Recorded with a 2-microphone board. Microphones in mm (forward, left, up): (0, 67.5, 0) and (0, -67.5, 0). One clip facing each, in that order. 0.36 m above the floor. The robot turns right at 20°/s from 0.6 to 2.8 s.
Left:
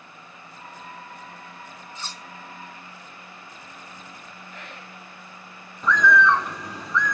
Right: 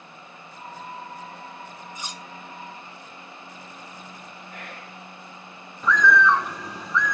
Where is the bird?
Centre (ahead or behind), 1.0 m.